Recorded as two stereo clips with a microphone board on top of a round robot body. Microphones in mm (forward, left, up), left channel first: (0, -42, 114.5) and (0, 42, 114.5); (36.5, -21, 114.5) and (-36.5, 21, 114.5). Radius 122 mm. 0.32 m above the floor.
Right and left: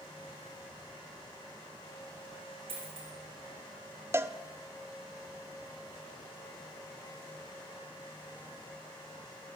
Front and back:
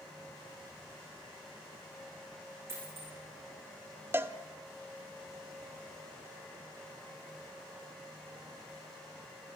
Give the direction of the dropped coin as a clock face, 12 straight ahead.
9 o'clock.